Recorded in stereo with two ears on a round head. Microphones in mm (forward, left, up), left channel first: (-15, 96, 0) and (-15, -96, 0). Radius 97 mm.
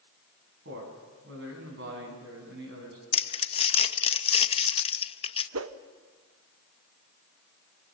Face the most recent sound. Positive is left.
turn(degrees=-65)  # may be behind; listen again after turning